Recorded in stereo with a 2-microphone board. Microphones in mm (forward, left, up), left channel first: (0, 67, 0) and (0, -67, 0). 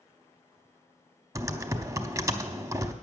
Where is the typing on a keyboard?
25° right (ahead or behind), 0.7 m.